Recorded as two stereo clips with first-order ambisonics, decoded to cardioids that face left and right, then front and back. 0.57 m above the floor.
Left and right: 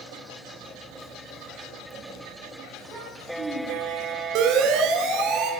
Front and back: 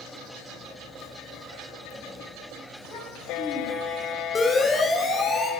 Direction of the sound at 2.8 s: Straight ahead.